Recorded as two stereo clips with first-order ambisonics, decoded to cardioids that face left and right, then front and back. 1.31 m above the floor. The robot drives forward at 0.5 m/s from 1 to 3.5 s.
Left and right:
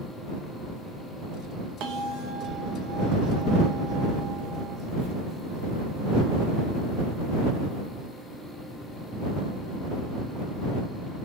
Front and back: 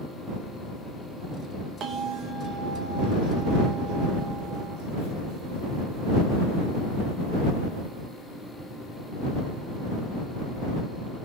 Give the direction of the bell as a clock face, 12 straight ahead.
4 o'clock.